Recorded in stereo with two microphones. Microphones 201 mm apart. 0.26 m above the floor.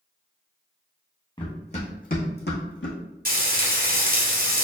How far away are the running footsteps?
About 1.3 m.